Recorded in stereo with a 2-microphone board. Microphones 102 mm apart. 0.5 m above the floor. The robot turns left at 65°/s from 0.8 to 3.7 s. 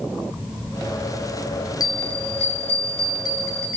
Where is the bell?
140° left, 2.5 m; by 3.8 s 15° left, 2.5 m.